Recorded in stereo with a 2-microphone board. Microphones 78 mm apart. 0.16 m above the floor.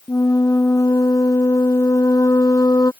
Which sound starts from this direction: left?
A flute, at 0.1 s.